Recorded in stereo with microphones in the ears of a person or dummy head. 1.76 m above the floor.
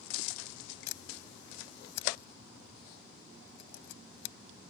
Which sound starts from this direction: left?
A camera shutter, at 0.9 s.